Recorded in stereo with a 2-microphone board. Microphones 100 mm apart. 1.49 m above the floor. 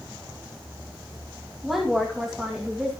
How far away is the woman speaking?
About 2.5 m.